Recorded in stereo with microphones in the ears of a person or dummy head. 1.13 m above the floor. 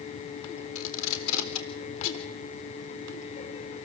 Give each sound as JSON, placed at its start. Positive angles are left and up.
{"t": 0.8, "sound": "tape being pulled", "side_deg": 70, "distance_m": 3.5}